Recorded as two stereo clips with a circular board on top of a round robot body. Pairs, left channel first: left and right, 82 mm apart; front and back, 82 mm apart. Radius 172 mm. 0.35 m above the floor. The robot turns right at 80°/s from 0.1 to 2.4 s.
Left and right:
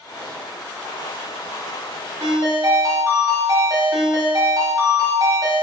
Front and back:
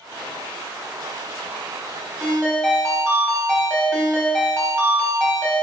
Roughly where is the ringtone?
Right.